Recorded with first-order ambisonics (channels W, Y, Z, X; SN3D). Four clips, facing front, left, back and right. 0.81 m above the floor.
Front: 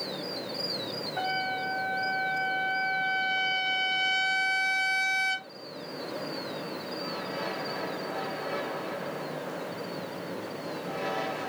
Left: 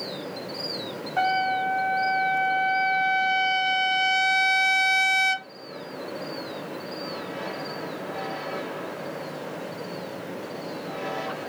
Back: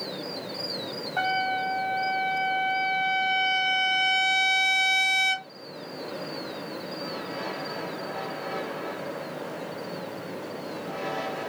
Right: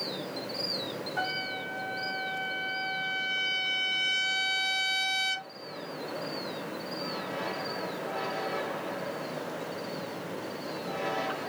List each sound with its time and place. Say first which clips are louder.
1.2 s a trumpet: left 11 dB, back 5 dB; 130° left, 1.0 m